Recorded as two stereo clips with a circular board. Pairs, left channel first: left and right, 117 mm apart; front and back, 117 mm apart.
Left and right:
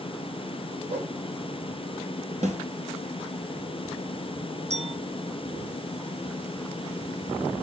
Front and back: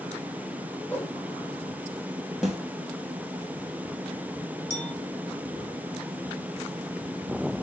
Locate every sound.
0.9 s a whoosh: 75° right, 3 m
2.4 s a snare drum: 90° right, 3 m
4.7 s a clink: 70° right, 4 m